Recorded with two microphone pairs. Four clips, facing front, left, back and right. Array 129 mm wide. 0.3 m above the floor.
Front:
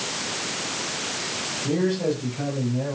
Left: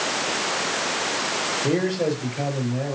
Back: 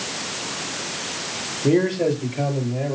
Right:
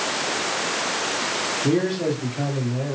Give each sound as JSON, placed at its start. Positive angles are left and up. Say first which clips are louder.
{"t": 1.6, "sound": "a man speaking", "louder": "right 1 dB, back 5 dB", "azimuth_deg": 145, "distance_m": 7.0}